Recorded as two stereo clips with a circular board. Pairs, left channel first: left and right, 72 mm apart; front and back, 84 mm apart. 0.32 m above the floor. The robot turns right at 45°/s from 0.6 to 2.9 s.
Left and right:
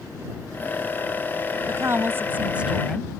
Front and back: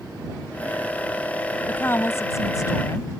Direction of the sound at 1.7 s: 65° right.